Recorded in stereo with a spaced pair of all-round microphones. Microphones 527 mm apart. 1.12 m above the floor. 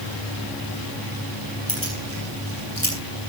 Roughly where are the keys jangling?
Right.